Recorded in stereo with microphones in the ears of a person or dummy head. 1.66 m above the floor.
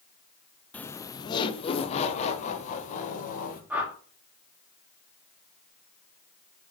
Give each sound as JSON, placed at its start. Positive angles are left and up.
{"t": 0.7, "sound": "laughter", "side_deg": 5, "distance_m": 0.8}
{"t": 3.7, "sound": "a whoosh", "side_deg": -10, "distance_m": 2.5}